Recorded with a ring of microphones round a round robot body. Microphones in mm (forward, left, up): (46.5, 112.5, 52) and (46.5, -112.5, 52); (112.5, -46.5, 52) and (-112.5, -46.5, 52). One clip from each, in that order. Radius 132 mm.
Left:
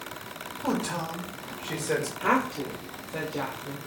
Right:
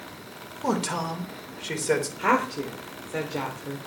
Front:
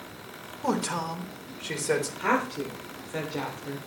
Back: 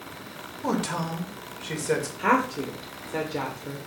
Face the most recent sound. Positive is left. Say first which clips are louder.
# right 2 dB, back 3 dB
turn(degrees=-110)